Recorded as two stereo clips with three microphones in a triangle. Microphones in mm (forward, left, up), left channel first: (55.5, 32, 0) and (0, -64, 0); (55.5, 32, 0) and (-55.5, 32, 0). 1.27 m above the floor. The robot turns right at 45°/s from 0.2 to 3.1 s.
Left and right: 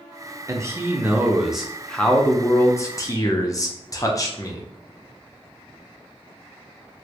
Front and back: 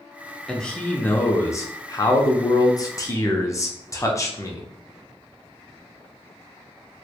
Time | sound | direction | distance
0.5 | a man speaking | 85° right | 0.5 m